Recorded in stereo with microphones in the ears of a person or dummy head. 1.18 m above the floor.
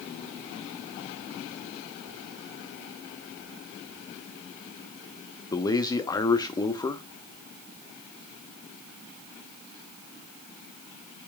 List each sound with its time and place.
5.5 s a man speaking: 20° left (ahead or behind), 0.9 m